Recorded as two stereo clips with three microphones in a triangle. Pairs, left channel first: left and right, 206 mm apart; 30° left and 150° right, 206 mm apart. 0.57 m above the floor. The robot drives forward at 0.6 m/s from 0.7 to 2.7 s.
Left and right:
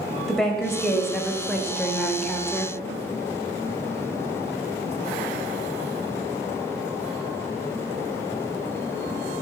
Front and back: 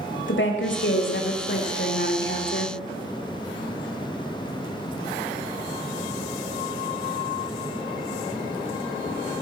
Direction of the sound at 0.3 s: Straight ahead.